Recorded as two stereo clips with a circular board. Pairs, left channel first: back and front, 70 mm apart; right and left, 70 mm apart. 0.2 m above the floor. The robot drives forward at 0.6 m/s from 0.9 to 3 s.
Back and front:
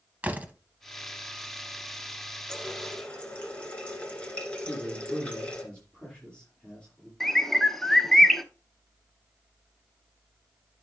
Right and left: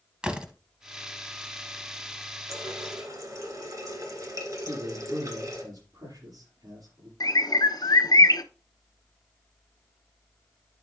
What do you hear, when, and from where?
0.2 s a door slam: 35° left, 0.8 m
2.5 s a running tap: 100° left, 2.0 m; by 5.6 s 110° left, 2 m
4.6 s a man speaking: 105° left, 6 m
7.2 s a bird: 95° right, 0.7 m